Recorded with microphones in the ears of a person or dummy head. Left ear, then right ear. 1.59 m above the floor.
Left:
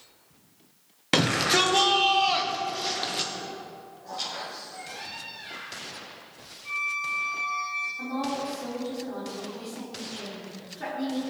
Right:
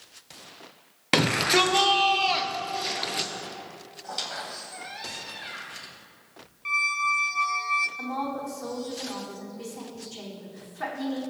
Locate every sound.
1.1 s a shout: 10° right (ahead or behind), 1.2 m
4.0 s a squeak: 55° right (ahead or behind), 2.5 m
6.7 s a squeak: 50° right (ahead or behind), 0.8 m
8.0 s a woman speaking: 45° right (ahead or behind), 4.5 m